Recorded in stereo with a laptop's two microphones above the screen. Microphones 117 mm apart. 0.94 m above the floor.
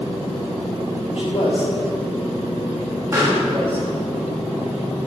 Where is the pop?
20° right (ahead or behind), 2.0 m.